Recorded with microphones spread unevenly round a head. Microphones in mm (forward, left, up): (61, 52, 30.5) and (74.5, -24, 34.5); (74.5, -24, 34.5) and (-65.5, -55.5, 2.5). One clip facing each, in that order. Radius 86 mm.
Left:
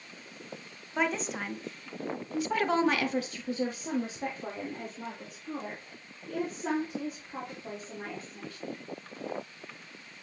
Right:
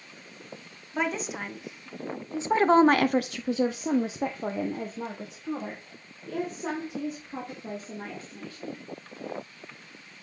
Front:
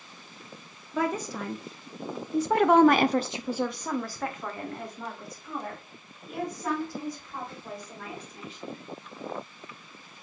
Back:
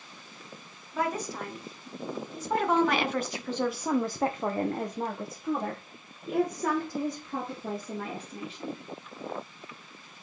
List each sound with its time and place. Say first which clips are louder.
0.9 s a woman speaking: right 1 dB, front 2 dB; 10° left, 1.3 m; by 8.8 s 140° right, 3 m